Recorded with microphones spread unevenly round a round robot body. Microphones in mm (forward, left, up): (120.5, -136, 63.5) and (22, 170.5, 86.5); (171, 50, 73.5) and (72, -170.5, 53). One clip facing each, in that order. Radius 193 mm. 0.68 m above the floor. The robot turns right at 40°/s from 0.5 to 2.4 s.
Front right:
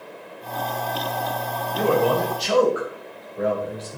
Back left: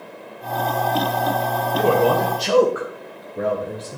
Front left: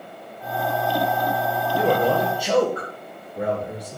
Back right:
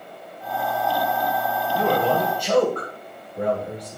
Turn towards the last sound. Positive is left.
turn(degrees=150)